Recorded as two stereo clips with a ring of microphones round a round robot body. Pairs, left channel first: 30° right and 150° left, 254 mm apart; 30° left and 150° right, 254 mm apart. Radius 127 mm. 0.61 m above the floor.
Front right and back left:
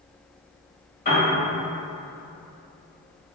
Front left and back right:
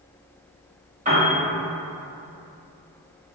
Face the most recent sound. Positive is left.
turn(degrees=-90)